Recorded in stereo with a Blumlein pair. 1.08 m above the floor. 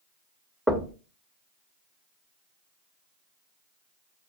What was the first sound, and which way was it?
Knocking, straight ahead.